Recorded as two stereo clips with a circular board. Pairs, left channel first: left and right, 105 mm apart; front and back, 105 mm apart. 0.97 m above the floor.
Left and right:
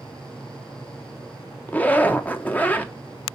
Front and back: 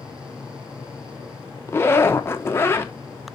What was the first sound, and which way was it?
A zipper, 35° left.